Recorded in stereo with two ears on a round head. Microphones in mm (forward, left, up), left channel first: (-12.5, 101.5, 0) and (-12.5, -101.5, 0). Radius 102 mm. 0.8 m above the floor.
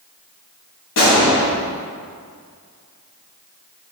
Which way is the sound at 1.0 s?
55° left (ahead or behind).